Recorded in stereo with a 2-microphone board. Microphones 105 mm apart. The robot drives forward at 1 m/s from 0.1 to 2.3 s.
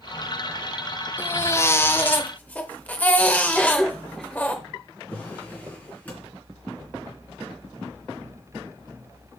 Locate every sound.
1.2 s a baby crying: 20° left (ahead or behind), 0.7 m; by 4.5 s 15° left (ahead or behind), 0.9 m
3.5 s a cough: 5° left (ahead or behind), 0.8 m
5.1 s a drawer: 15° left (ahead or behind), 3 m